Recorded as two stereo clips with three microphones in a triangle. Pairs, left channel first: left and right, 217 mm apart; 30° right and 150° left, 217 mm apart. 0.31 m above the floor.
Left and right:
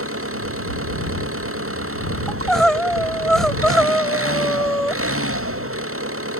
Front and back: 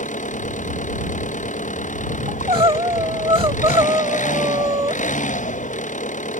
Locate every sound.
0.0 s an engine running: 85° right
2.3 s crying: 175° left